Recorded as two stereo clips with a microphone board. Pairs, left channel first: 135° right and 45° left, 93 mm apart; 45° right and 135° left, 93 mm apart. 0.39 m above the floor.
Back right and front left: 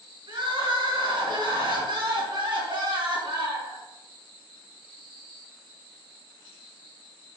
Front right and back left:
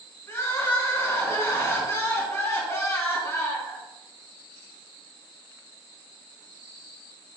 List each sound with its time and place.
0.3 s crying: 15° left, 3 m